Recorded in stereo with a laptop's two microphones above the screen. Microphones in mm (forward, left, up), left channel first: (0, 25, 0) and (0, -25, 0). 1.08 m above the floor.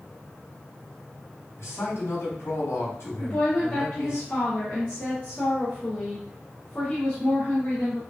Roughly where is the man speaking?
Left.